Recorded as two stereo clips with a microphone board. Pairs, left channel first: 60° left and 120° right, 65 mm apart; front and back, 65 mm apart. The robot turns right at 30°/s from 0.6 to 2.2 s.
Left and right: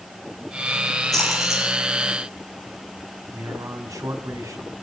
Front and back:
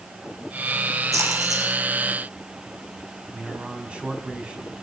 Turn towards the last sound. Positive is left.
turn(degrees=-110)